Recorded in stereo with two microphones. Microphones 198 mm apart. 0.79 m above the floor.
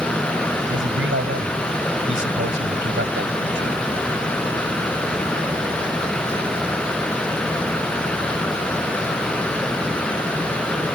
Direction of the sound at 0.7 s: 80° right.